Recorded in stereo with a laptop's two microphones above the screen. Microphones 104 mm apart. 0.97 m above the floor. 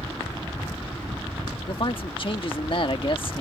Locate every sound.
1.7 s a man speaking: 50° left (ahead or behind)